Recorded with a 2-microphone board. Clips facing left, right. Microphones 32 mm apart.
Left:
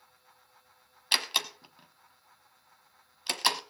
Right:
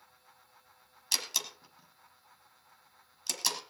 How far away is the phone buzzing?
No phone buzzing in this recording.